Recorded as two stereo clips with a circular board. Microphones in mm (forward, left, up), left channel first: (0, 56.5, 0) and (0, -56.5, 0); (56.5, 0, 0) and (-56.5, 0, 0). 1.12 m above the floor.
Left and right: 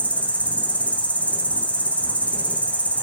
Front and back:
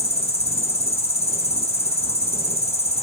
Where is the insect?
15° left, 4 m.